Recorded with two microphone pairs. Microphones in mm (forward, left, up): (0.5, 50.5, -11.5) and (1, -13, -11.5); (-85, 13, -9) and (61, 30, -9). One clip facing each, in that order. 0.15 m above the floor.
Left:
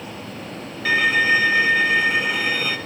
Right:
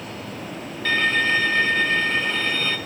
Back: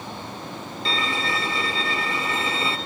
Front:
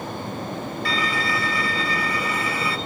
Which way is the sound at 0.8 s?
160° left.